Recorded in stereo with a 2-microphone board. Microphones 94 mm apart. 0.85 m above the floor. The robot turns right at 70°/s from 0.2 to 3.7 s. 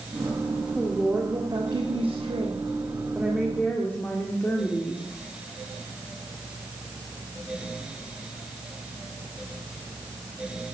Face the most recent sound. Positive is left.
turn(degrees=20)